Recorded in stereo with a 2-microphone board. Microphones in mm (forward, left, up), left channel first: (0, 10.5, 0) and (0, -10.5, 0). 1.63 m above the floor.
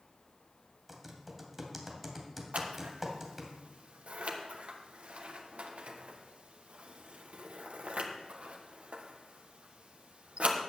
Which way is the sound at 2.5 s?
75° right (ahead or behind).